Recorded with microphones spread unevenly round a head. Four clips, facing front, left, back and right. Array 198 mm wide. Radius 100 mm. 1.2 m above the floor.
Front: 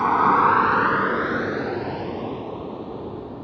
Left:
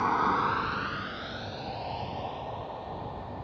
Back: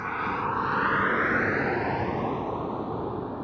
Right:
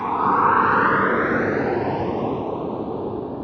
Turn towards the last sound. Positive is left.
turn(degrees=-95)